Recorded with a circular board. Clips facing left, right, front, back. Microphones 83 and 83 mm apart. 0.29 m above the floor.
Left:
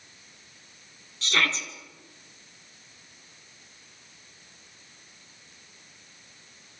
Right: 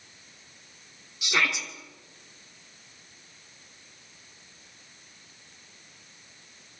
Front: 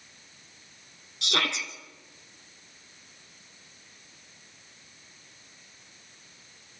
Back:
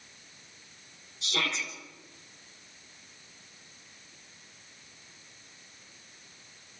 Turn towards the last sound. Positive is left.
turn(degrees=-10)